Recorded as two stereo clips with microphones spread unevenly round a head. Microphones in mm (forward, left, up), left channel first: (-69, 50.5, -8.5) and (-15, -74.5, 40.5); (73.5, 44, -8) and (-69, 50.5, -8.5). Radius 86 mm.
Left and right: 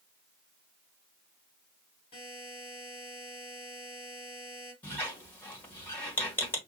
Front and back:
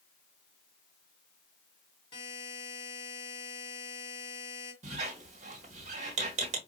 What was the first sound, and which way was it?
A buzzer, 45° left.